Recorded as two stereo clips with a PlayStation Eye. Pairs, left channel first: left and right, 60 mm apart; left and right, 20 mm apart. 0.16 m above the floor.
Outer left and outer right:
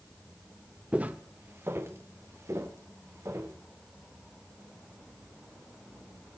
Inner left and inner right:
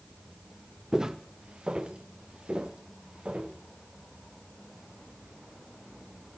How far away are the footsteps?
About 1.2 m.